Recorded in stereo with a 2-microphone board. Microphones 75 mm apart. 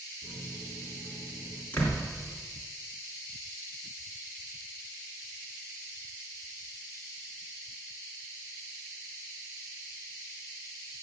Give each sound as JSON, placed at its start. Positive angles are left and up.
{"t": 0.2, "sound": "a microwave", "side_deg": 30, "distance_m": 3.5}
{"t": 1.7, "sound": "a door slam", "side_deg": 25, "distance_m": 3.5}